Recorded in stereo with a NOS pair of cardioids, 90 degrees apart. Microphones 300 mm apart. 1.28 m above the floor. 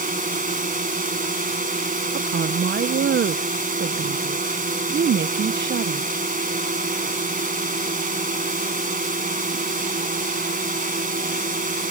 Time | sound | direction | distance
0.0 | a drone | 25° right | ?
2.1 | a woman speaking | 35° right | ?